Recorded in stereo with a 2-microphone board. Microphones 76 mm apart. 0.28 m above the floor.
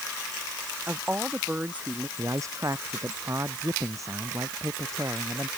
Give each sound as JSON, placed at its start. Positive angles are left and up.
{"t": 0.9, "sound": "a woman speaking", "side_deg": -20}
{"t": 2.2, "sound": "a man speaking", "side_deg": -45}